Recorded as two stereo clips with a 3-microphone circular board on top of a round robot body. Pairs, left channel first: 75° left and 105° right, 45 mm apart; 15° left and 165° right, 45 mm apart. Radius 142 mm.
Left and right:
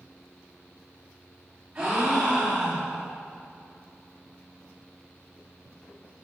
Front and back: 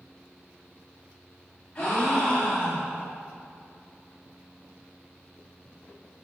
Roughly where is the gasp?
Ahead right.